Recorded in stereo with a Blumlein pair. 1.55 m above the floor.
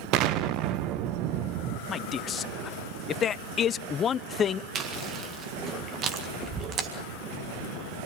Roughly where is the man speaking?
Ahead left.